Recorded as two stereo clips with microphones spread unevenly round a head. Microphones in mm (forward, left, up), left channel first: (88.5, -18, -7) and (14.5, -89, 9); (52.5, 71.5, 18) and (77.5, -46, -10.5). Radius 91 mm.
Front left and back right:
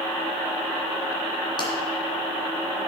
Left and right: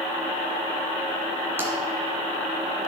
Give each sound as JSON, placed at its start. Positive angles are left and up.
{"t": 1.6, "sound": "tapping", "azimuth_deg": 0, "distance_m": 3.0}